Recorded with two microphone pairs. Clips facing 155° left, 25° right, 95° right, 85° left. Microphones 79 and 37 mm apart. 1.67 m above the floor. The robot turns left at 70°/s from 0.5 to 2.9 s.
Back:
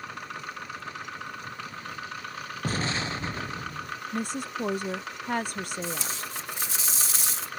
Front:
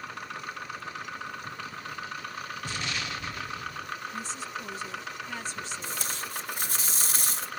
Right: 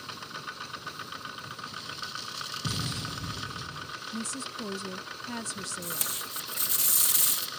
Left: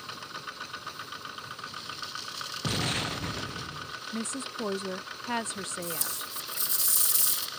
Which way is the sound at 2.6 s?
120° left.